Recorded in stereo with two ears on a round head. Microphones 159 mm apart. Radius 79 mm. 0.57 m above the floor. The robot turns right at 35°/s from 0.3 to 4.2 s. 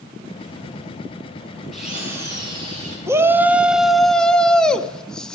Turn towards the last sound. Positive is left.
turn(degrees=10)